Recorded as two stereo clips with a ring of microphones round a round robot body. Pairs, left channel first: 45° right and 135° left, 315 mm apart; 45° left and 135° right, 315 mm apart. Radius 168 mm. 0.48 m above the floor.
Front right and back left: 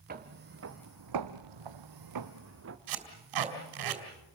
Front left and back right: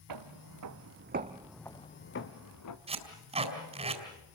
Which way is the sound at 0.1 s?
160° right.